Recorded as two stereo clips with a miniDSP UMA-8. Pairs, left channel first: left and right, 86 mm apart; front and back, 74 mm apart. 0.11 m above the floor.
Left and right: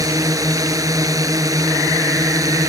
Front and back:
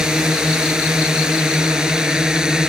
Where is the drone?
105° right.